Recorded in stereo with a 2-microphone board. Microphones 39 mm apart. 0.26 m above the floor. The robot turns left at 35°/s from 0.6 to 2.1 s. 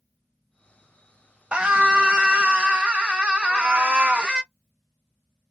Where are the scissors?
I don't hear scissors.